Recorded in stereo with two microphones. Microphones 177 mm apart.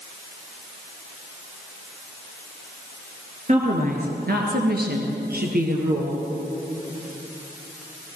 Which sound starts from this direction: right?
A woman speaking, at 3.5 s.